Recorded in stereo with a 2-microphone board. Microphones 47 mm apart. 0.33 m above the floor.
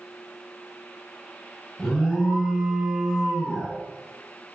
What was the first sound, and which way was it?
An alarm, 10° left (ahead or behind).